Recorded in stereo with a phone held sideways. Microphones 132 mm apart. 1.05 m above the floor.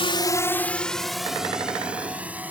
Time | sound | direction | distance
0.0 | a drone | 45° left (ahead or behind) | ?